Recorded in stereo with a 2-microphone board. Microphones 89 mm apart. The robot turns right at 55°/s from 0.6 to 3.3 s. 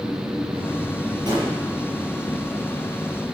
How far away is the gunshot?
About 8.5 m.